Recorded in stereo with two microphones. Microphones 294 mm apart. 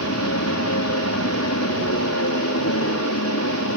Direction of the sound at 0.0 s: 60° left (ahead or behind).